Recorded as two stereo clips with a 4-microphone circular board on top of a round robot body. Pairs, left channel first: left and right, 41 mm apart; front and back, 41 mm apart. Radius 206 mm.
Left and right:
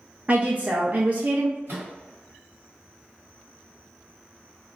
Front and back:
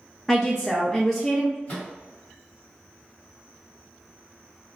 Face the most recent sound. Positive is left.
turn(degrees=-60)